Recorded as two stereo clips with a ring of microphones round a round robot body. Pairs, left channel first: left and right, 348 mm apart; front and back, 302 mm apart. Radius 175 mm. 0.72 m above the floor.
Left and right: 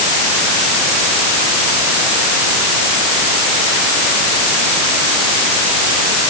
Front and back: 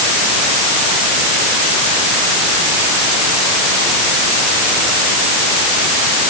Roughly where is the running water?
I don't hear running water.